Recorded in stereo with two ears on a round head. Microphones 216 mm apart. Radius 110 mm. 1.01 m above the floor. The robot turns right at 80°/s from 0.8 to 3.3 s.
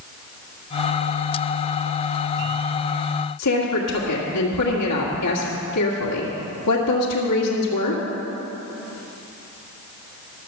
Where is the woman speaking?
75° left (ahead or behind), 2 m.